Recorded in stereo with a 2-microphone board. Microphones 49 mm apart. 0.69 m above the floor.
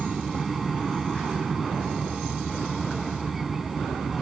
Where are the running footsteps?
No running footsteps in this recording.